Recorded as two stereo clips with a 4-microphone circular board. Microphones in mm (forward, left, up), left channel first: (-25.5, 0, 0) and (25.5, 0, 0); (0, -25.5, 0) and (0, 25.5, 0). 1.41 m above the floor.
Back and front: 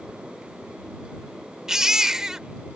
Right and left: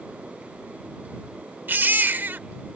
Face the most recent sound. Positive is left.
turn(degrees=70)